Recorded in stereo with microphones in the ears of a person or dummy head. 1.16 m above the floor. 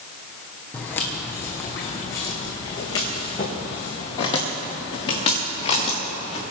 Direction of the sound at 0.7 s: 5° left (ahead or behind).